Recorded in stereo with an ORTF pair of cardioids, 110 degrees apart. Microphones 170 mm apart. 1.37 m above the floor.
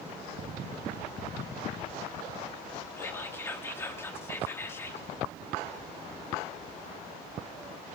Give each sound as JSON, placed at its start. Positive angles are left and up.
{"t": 3.0, "sound": "whispering", "azimuth_deg": 15, "distance_m": 4.0}